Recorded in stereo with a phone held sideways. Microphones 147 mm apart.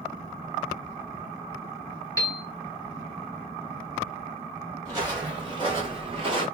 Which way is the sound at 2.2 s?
20° left (ahead or behind).